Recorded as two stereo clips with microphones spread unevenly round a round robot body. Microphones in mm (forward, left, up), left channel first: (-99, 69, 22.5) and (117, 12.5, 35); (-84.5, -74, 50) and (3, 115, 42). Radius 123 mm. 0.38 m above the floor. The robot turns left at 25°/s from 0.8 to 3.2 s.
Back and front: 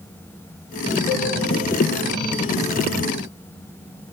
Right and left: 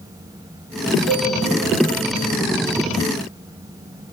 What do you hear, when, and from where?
1.1 s a cowbell: 110° left, 5 m